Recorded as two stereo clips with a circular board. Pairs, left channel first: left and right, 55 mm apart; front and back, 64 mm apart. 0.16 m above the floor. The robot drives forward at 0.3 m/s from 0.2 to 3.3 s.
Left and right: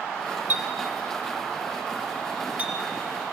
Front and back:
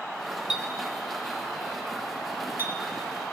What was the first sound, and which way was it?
A clink, 110° right.